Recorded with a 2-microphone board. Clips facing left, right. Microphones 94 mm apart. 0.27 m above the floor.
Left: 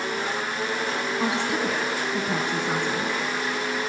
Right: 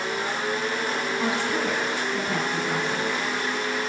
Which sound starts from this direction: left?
A woman speaking, at 1.2 s.